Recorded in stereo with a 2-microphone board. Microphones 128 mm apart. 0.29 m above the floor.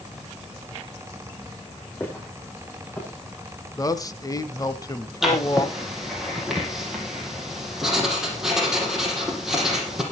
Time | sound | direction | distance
2.0 | footsteps | 15° left (ahead or behind) | 6.5 m
3.8 | a man speaking | 30° left (ahead or behind) | 1.1 m
5.2 | writing | 5° right (ahead or behind) | 4.5 m